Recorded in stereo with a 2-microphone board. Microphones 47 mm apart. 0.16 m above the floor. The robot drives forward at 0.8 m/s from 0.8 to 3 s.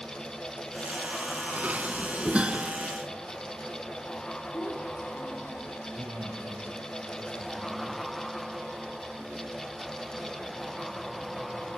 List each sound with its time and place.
1.6 s dishes clattering: 35° right (ahead or behind), 0.8 m; by 2.7 s 25° right (ahead or behind), 1.2 m
4.5 s a child speaking: 50° left (ahead or behind), 5.5 m
5.9 s a man speaking: 70° right (ahead or behind), 7 m